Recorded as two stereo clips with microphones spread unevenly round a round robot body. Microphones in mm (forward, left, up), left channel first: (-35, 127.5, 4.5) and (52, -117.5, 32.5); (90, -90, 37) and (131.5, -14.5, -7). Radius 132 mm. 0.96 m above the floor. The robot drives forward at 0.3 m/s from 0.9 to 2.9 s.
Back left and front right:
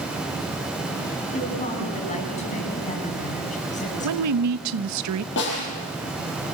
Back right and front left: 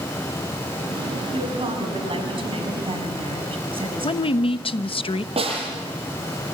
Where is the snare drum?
60° left, 9.5 m.